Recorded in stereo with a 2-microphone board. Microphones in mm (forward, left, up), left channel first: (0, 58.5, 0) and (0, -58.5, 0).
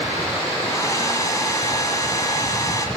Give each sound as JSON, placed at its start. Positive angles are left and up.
{"t": 0.6, "sound": "a hair dryer", "side_deg": 30, "distance_m": 1.8}